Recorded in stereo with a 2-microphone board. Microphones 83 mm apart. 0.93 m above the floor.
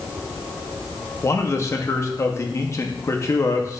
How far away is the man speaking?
About 1.2 m.